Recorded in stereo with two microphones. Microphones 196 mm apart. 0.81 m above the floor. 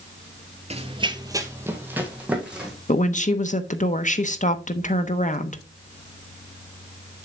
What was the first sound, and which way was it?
Running footsteps, 35° right (ahead or behind).